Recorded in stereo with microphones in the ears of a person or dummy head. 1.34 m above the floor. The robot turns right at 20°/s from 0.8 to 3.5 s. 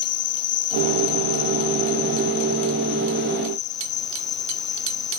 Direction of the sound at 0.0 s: 90° left.